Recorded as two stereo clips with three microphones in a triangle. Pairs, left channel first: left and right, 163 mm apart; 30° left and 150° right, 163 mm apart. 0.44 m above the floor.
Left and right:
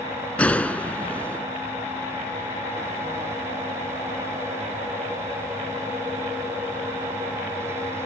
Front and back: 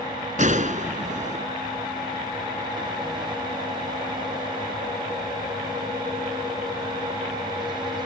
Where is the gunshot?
170° left.